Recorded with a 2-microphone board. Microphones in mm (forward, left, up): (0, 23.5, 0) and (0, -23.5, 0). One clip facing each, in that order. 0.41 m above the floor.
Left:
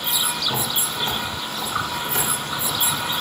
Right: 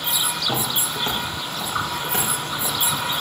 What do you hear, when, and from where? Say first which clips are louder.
0.4 s footsteps: right 1 dB; 55° right (ahead or behind), 7.5 m; by 2.8 s 65° right (ahead or behind), 9 m